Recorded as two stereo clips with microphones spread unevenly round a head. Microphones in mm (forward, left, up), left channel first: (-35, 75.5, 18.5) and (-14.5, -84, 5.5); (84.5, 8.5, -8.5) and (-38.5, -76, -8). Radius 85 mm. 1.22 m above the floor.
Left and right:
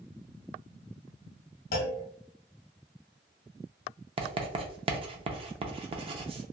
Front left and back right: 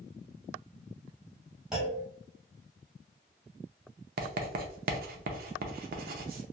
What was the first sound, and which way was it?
A clunk, 130° left.